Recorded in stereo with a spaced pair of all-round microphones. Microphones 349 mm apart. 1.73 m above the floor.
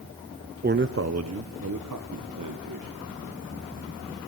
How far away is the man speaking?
About 0.6 m.